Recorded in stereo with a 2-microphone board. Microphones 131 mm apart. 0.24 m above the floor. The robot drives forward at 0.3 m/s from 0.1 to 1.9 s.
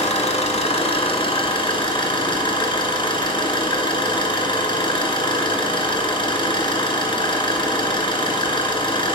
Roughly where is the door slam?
No door slam in this recording.